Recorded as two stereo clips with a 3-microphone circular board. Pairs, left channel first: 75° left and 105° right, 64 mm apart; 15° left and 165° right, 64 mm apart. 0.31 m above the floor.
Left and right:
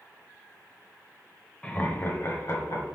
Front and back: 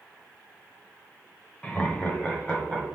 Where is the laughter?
40° left, 0.9 m; by 2.9 s 90° left, 1.6 m.